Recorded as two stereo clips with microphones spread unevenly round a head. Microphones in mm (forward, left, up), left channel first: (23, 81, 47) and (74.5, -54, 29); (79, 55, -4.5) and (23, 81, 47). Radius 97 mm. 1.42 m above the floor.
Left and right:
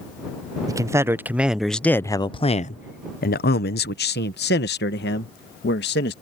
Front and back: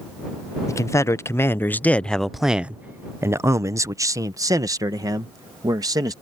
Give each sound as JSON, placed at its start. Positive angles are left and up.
{"t": 0.7, "sound": "a man speaking", "azimuth_deg": -5}